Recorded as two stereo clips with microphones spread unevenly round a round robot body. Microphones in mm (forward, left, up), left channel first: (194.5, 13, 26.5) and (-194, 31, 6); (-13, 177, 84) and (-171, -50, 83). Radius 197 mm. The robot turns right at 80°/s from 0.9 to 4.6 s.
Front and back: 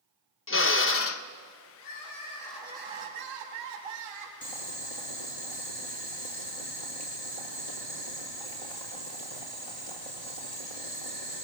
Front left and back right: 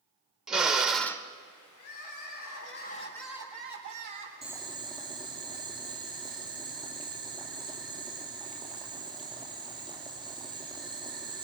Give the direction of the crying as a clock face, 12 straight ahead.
11 o'clock.